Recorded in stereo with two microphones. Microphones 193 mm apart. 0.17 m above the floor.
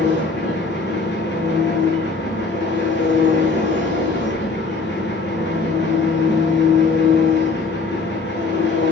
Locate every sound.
0.0 s an engine running: 70° left (ahead or behind), 7 m